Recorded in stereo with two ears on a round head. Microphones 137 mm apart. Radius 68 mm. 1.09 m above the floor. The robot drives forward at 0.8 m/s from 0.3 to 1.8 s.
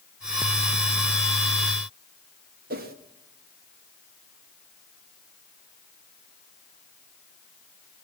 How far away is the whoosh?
About 1.9 m.